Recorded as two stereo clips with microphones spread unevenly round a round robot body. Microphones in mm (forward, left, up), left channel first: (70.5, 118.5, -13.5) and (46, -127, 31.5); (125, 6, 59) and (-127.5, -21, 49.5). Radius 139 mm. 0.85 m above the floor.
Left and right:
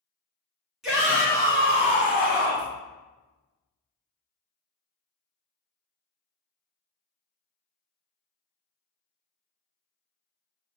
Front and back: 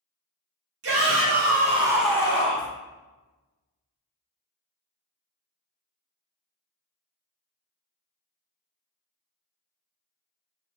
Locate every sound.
0.8 s a shout: 170° left, 1.8 m; by 2.7 s 55° left, 1.4 m